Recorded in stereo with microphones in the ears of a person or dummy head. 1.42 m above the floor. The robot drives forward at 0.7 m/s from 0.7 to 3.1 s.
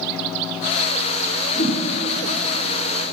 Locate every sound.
1.5 s a whoosh: 60° left (ahead or behind), 4 m; by 1.8 s 65° left (ahead or behind), 4 m